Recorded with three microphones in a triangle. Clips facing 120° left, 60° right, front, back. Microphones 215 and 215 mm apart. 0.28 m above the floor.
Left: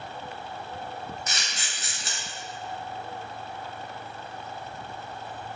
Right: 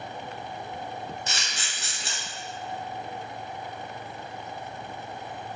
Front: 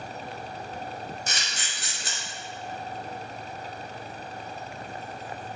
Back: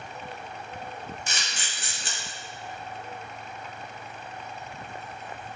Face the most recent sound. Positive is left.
turn(degrees=-20)